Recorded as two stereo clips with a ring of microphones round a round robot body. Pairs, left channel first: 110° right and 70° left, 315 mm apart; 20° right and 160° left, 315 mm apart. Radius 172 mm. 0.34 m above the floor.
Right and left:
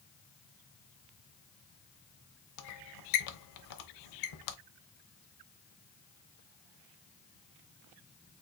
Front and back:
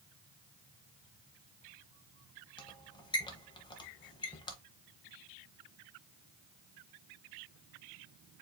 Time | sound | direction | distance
2.6 | a squeak | 100° right | 0.8 m